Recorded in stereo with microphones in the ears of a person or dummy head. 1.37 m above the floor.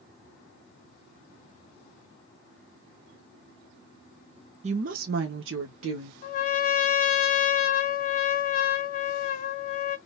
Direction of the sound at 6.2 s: 50° left (ahead or behind).